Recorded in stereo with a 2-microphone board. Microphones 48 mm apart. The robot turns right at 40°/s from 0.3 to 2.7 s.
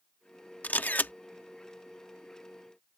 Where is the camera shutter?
35° left (ahead or behind); by 1.1 s 40° left (ahead or behind).